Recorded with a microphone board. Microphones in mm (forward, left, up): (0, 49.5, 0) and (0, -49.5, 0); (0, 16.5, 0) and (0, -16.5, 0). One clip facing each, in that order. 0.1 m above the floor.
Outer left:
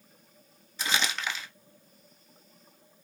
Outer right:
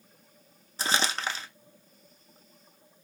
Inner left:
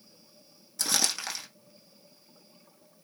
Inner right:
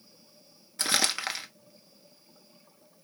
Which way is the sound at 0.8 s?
35° right (ahead or behind).